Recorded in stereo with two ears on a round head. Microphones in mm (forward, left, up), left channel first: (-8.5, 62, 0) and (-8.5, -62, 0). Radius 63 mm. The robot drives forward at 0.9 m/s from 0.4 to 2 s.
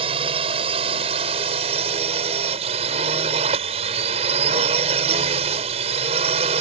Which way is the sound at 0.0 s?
40° right (ahead or behind).